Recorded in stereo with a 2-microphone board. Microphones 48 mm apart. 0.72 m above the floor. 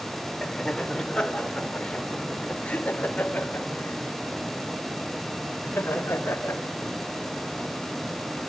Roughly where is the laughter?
Centre.